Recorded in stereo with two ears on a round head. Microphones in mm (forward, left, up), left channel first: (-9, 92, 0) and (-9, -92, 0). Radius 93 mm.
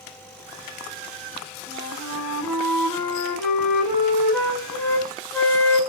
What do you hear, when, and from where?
1.7 s a flute: 10° left (ahead or behind), 2.5 m